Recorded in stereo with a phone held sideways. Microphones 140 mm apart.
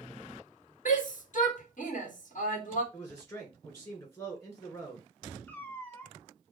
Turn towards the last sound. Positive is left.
turn(degrees=15)  # may be behind; listen again after turning